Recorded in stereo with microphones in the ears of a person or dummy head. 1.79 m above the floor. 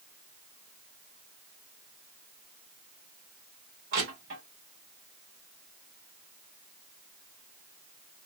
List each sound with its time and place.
3.9 s crushing: 50° right (ahead or behind), 1.5 m